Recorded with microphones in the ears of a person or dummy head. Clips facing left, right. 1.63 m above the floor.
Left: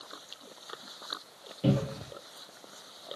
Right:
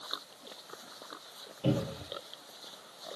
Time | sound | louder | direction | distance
1.6 | a cupboard door | left 3 dB | 35° left (ahead or behind) | 2.5 m